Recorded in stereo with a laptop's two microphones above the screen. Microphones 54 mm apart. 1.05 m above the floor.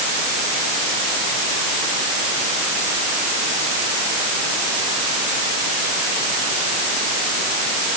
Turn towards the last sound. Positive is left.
No sound to turn to.